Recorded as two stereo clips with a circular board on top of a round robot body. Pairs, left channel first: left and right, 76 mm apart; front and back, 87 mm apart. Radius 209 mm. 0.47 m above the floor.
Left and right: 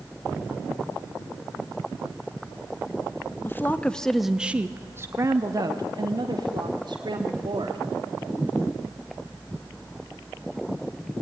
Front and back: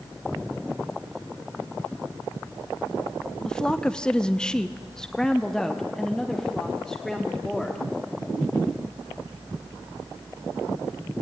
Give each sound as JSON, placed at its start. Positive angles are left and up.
{"t": 3.5, "sound": "a woman speaking", "azimuth_deg": 75, "distance_m": 1.2}